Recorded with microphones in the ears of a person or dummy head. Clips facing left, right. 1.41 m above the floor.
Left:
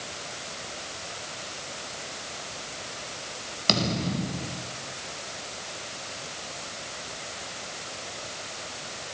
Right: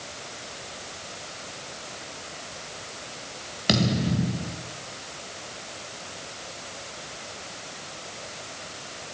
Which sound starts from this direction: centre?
A thud, at 3.7 s.